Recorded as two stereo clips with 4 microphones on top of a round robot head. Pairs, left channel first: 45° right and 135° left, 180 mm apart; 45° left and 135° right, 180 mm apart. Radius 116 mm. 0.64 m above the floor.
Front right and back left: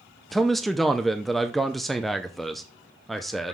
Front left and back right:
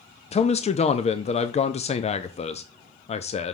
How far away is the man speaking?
About 0.6 m.